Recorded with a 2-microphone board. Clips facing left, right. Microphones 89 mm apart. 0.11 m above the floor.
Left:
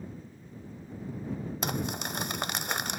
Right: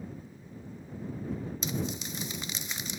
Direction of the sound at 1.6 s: 60° left (ahead or behind).